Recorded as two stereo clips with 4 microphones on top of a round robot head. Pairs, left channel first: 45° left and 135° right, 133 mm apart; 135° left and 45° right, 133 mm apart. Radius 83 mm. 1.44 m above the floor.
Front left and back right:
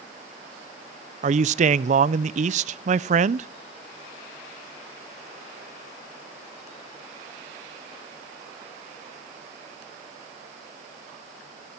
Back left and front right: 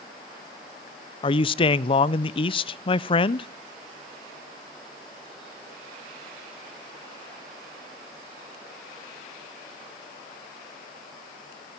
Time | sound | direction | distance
1.2 | a man speaking | 170° right | 0.6 m